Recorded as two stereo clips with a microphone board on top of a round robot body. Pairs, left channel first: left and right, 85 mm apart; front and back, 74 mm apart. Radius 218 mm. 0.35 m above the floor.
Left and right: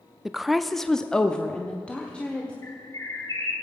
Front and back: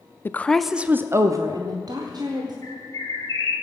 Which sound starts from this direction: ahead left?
A bird, at 2.6 s.